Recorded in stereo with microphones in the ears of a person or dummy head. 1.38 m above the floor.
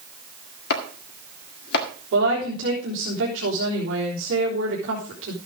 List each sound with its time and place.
0.7 s chopping: 60° left (ahead or behind), 1.8 m
2.1 s a woman speaking: 75° right (ahead or behind), 3.5 m